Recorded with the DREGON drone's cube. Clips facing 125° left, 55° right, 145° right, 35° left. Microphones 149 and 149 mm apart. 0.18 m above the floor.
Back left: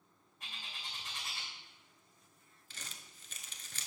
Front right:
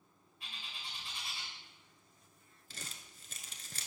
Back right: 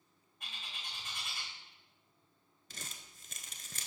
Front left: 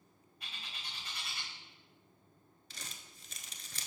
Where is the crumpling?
105° right, 0.7 m.